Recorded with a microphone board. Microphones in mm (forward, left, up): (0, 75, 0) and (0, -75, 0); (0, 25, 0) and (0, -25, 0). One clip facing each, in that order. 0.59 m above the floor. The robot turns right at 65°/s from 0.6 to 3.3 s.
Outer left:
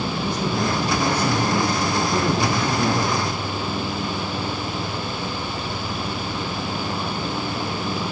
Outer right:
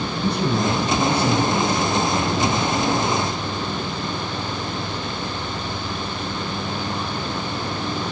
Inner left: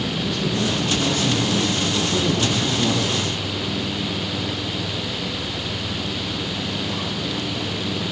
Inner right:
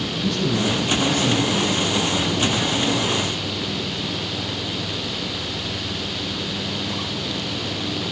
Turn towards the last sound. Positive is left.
turn(degrees=100)